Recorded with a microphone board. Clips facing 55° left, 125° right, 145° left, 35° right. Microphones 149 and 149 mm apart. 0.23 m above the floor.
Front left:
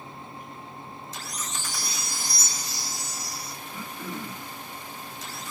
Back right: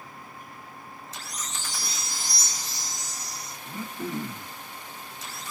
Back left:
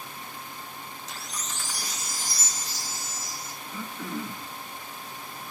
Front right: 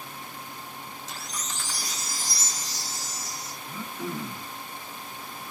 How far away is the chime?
About 7 m.